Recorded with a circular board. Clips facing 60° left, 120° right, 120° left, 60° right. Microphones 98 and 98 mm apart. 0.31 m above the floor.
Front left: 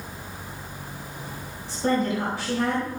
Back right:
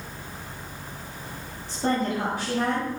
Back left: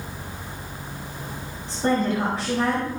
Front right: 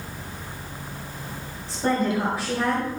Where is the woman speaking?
140° right, 2.5 m.